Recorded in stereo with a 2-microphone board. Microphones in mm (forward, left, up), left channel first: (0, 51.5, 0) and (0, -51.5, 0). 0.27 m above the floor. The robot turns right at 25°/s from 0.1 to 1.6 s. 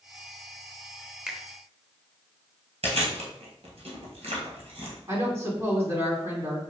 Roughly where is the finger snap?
Centre.